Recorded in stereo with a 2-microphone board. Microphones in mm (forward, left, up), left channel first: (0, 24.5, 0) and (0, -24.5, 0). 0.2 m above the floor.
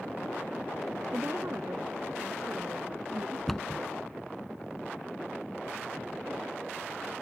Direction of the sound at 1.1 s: 45° right (ahead or behind).